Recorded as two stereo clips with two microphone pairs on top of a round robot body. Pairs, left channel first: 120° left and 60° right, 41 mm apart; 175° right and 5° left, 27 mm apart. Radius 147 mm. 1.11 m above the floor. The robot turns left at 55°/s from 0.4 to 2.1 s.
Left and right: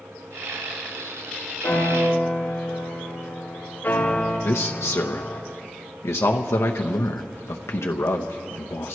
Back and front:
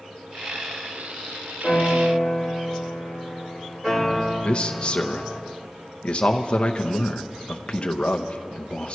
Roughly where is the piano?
Left.